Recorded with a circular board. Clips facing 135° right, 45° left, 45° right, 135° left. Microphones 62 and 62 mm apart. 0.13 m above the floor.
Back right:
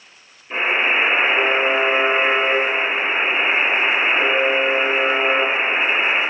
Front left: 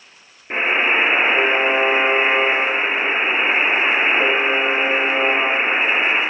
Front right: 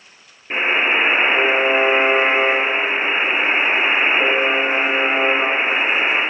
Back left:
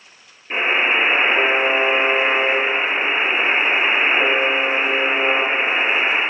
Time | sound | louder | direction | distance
0.5 | a buzzer | front left 1 dB, even | 25° left | 2 m